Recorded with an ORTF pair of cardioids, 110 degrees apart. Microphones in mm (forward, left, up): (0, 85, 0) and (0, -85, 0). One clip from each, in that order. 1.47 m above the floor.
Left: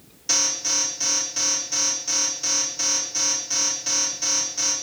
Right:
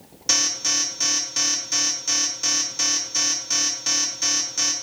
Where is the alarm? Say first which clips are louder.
Right 1 dB; 35° right, 1.8 m.